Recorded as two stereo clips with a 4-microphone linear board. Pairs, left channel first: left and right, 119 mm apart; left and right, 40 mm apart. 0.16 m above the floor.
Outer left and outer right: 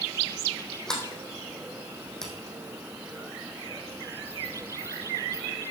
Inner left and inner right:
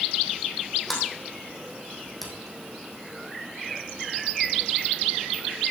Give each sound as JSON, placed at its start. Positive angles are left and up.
{"t": 0.9, "sound": "a sliding door", "side_deg": 5, "distance_m": 3.5}